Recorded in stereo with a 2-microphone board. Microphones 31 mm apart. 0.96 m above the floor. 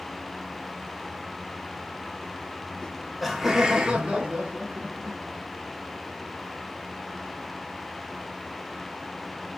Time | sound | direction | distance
2.8 | laughter | 15° left (ahead or behind) | 0.9 m